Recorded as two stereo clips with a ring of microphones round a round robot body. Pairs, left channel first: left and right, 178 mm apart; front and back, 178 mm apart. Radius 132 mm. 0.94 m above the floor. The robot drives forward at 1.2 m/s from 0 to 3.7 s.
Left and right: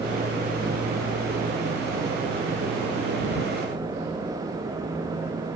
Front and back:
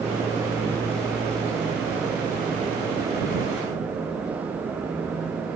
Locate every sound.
Only background noise.